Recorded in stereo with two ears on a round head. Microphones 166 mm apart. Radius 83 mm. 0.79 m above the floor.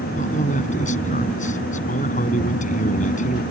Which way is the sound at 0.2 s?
40° left (ahead or behind).